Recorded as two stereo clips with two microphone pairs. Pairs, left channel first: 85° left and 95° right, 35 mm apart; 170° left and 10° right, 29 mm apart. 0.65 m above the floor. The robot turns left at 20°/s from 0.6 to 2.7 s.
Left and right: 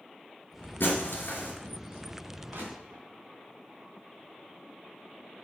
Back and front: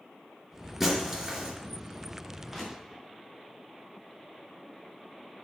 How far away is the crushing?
About 4 m.